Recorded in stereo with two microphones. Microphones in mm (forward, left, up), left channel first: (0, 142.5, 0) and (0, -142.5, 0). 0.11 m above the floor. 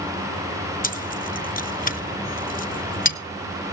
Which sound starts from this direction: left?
Keys jangling, at 0.8 s.